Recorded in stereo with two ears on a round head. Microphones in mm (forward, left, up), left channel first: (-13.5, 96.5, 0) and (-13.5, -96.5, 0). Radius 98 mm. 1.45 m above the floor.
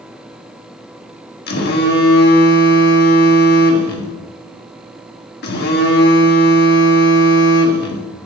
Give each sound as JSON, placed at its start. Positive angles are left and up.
{"t": 1.5, "sound": "a phone buzzing", "side_deg": 45, "distance_m": 1.3}